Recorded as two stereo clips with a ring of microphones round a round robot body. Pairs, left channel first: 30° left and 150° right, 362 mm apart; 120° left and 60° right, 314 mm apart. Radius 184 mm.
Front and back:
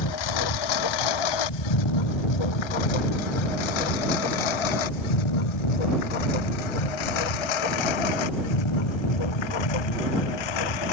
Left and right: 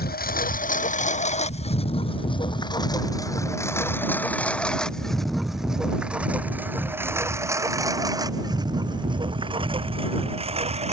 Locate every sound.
0.0 s a lawn mower: 60° left; by 10.9 s 10° left